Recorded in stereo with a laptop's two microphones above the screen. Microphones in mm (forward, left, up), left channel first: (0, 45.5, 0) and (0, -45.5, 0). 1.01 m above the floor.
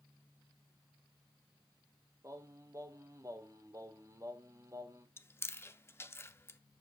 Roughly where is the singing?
Right.